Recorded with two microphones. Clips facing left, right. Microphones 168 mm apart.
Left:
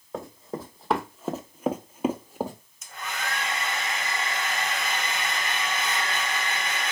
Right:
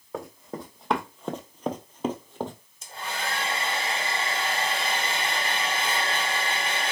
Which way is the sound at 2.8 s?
30° right (ahead or behind).